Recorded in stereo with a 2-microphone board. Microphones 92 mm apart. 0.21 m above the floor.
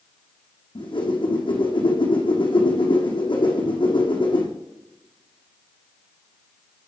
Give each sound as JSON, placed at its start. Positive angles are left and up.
{"t": 0.8, "sound": "a whoosh", "side_deg": 65, "distance_m": 3.5}